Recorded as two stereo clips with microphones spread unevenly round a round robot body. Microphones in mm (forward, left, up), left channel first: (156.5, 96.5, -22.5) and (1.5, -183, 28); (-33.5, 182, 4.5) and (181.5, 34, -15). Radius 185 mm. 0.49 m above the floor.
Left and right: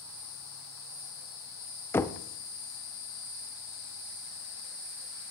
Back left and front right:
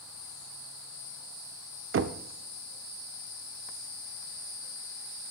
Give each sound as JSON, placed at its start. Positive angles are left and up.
{"t": 1.9, "sound": "knocking", "azimuth_deg": -15, "distance_m": 0.6}